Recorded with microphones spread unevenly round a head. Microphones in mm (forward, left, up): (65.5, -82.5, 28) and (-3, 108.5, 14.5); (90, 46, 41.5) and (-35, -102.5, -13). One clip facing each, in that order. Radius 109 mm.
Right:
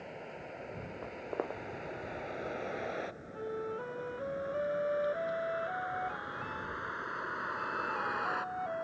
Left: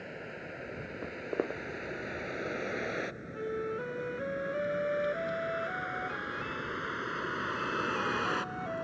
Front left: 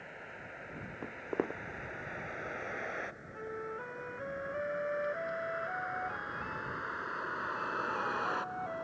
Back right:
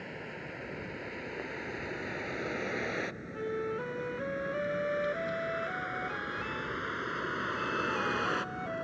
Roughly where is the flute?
Behind.